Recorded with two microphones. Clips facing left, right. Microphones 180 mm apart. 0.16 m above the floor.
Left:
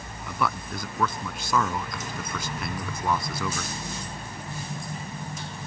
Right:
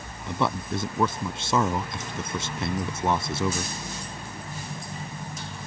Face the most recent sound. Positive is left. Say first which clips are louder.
# right 3 dB
turn(degrees=-30)  # may be behind; listen again after turning